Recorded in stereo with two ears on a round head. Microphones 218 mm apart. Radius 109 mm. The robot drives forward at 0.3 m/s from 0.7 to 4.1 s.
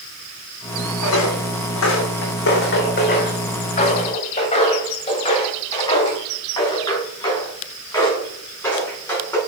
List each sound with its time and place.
1.0 s footsteps: 65° left (ahead or behind), 1.6 m; by 9.4 s 10° left (ahead or behind), 5 m